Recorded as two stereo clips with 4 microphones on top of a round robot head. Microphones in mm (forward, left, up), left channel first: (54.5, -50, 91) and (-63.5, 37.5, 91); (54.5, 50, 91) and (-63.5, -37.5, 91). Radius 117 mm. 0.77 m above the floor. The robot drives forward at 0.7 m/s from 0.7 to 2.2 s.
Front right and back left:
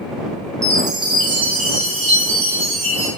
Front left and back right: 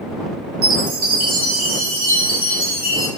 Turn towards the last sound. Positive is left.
turn(degrees=-170)